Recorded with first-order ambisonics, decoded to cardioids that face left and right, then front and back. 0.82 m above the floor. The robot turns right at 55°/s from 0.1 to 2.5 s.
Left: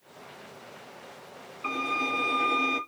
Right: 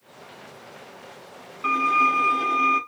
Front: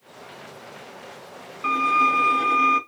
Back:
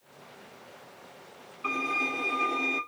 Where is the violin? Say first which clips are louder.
Right 9 dB, front 10 dB; 40° right, 1.6 m; by 2.8 s 10° left, 1.6 m.